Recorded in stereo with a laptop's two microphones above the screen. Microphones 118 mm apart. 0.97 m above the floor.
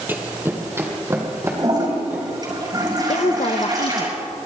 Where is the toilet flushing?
35° right (ahead or behind), 6 m.